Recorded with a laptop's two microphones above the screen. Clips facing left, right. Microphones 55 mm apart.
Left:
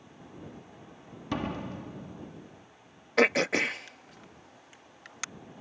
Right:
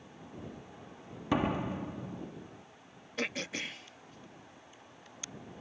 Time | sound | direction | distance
1.3 | a door slam | 15° right (ahead or behind) | ?
3.2 | throat clearing | 85° left | ?